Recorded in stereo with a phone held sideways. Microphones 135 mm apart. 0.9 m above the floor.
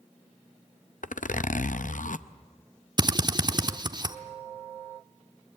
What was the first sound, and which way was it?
A zipper, 75° left (ahead or behind).